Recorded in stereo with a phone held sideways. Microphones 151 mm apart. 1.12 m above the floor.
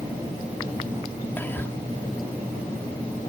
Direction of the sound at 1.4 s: 15° left (ahead or behind).